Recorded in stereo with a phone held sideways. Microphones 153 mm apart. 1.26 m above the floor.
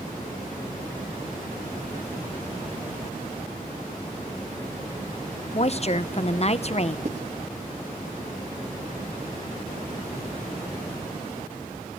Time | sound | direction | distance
5.5 | a woman speaking | 45° left (ahead or behind) | 0.8 m
7.0 | writing | 45° right (ahead or behind) | 2.5 m